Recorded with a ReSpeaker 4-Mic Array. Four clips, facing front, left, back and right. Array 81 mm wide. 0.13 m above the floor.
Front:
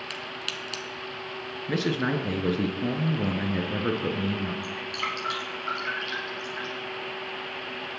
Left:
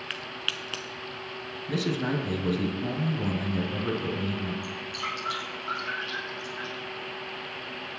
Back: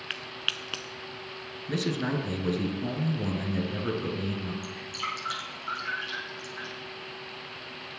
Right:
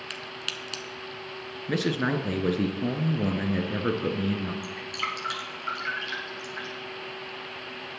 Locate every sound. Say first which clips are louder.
0.1 s a crack: left 1 dB, front 2 dB; 145° left, 1.0 m
1.7 s a man speaking: right 2 dB, front 3 dB; 55° right, 1.5 m
4.6 s dripping: right 1 dB, front 3 dB; 60° right, 3 m